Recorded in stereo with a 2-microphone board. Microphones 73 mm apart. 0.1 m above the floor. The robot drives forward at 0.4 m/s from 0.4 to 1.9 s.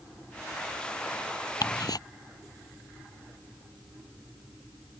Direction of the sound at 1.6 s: 70° left (ahead or behind).